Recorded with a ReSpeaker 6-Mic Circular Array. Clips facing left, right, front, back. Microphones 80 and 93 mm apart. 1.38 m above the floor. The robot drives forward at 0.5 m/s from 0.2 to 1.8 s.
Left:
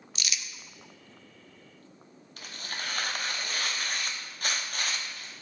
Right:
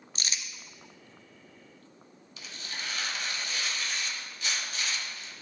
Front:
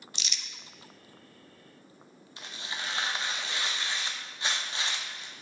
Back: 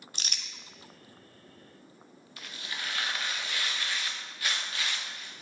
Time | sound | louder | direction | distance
0.1 | crumpling | even, even | 140° right | 0.5 m
2.4 | tearing paper | left 2 dB, front 1 dB | 60° left | 0.9 m